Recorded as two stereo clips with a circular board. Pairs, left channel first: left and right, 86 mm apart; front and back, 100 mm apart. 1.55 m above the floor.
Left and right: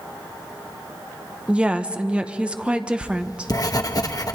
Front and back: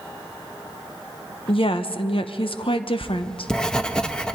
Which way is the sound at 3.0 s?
80° left.